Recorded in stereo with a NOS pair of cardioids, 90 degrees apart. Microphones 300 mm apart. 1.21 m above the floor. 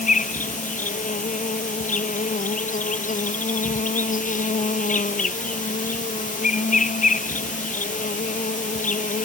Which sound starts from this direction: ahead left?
An insect, at 0.0 s.